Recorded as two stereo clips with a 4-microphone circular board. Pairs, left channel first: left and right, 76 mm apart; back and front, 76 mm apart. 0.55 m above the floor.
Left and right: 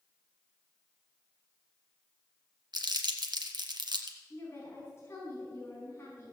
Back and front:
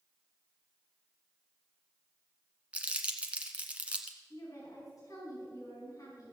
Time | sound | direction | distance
2.7 | crumpling | 70° right | 1.4 m
4.3 | a woman speaking | 145° left | 4 m